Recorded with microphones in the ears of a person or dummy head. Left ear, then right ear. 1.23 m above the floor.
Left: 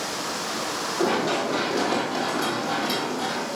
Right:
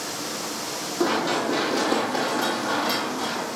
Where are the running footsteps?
15° right (ahead or behind), 2.5 m; by 3.6 s 40° right (ahead or behind), 2.5 m.